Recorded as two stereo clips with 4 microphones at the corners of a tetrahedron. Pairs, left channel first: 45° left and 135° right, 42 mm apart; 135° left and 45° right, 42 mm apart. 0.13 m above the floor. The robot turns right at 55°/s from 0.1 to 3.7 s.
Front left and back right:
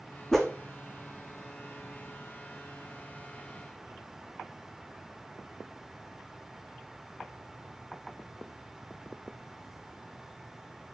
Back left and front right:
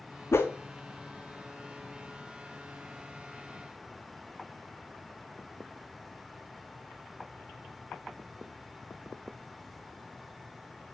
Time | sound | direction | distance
0.3 | a whoosh | 125° left | 1.4 m